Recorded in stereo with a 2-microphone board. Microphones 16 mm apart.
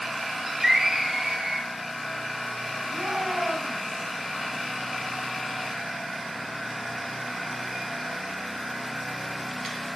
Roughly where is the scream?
Right.